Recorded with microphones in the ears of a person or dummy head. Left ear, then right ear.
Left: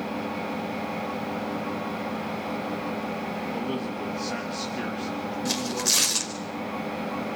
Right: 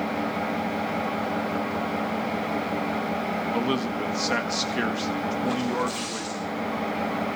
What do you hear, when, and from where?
0.0 s an engine running: 80° right, 9.5 m
3.5 s a man speaking: 55° right (ahead or behind), 1.8 m
5.5 s tearing paper: 70° left (ahead or behind), 3.5 m